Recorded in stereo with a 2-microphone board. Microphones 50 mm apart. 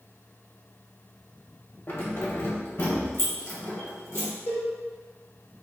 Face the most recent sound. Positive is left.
turn(degrees=75)  # may be behind; listen again after turning